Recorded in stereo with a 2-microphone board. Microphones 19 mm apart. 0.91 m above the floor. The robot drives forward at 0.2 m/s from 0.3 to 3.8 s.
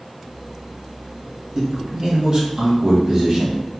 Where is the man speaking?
40° right (ahead or behind), 0.8 m; by 3.6 s 35° right (ahead or behind), 0.9 m.